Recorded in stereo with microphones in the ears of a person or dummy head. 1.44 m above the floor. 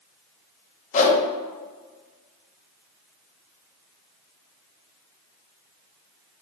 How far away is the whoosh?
About 0.6 m.